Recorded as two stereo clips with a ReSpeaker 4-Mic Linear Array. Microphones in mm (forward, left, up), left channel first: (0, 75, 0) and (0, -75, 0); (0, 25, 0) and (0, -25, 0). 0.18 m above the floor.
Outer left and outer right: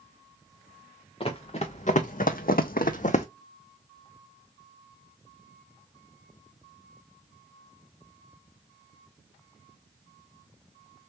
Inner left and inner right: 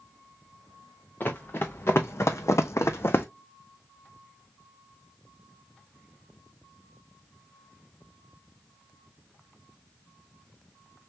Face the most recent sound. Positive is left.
turn(degrees=50)  # may be behind; listen again after turning